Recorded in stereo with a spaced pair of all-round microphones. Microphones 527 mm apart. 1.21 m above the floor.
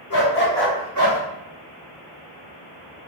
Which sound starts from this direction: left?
A dog barking, at 0.1 s.